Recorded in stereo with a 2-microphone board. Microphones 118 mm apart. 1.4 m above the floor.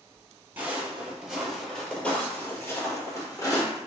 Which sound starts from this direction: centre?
Footsteps, at 0.6 s.